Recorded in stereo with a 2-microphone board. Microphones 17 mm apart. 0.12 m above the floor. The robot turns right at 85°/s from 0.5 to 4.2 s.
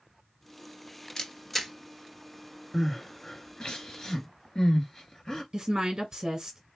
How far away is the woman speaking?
About 1.5 m.